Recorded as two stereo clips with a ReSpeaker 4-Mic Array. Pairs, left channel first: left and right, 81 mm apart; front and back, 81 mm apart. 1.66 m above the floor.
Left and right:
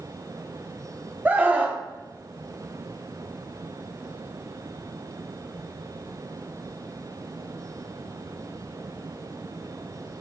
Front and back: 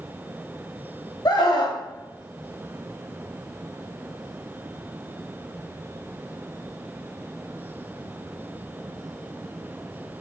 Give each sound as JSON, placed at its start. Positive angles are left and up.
{"t": 1.2, "sound": "a scream", "azimuth_deg": -25, "distance_m": 2.0}